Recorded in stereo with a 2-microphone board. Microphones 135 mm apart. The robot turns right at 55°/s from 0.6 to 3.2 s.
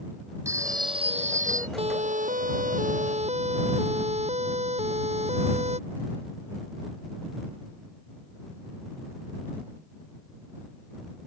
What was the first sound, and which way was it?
A phone ringing, 160° right.